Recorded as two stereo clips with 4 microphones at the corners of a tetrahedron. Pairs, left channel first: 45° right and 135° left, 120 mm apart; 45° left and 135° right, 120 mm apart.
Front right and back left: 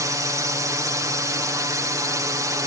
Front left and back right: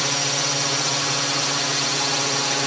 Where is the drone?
135° left.